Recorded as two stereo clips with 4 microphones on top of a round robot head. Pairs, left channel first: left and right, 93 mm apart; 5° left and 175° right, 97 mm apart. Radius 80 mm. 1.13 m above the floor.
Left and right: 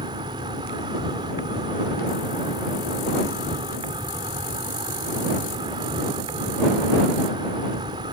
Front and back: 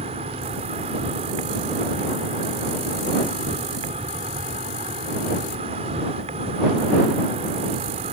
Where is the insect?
145° right.